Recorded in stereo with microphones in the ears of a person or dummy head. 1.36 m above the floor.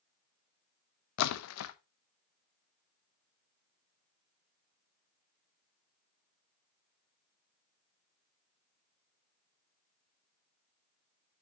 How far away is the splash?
About 0.9 m.